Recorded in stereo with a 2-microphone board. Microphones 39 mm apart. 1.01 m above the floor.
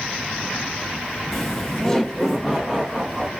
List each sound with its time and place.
1.3 s laughter: 10° left (ahead or behind), 0.6 m